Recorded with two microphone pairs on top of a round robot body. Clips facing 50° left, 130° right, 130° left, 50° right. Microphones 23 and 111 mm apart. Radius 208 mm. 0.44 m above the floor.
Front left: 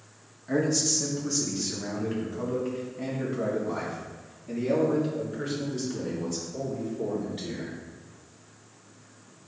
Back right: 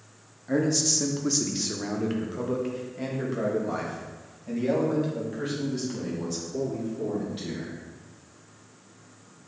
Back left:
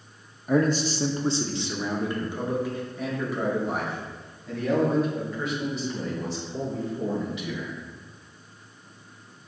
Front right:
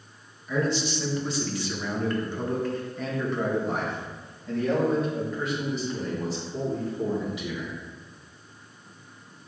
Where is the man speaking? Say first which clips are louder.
Back right 1 dB, back left 4 dB; 140° left, 1.0 m; by 7.8 s 135° right, 6 m.